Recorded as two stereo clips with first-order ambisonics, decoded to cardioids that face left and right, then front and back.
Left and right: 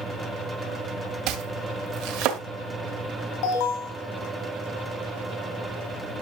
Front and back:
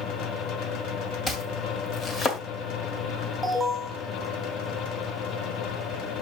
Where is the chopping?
70° right, 1.5 m.